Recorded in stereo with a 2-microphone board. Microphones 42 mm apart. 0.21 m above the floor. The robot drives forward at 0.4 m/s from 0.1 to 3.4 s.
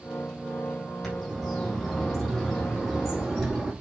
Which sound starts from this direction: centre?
A bird, at 1.0 s.